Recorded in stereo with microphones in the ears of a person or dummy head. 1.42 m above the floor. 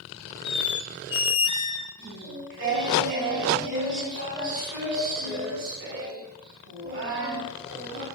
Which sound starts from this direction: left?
A squeak, at 0.5 s.